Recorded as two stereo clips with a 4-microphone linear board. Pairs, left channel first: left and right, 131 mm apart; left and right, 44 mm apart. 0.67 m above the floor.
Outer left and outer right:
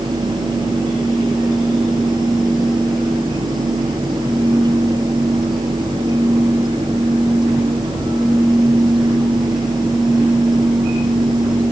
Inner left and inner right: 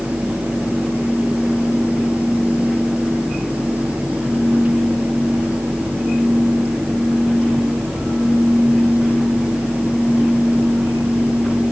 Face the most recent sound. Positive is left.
No sound to turn to.